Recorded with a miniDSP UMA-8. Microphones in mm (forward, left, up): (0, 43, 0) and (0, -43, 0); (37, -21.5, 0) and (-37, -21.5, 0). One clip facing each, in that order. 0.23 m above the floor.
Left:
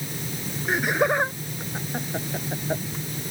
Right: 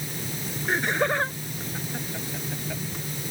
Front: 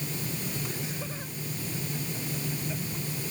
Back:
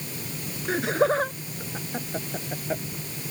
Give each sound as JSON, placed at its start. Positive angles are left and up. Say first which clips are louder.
{"t": 0.7, "sound": "laughter", "louder": "left 2 dB, back 15 dB", "azimuth_deg": 175}